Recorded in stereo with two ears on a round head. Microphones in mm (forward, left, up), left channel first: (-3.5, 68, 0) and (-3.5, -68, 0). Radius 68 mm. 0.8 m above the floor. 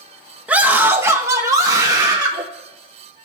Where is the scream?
10° right (ahead or behind), 1.1 m; by 2.4 s 25° right (ahead or behind), 1.5 m.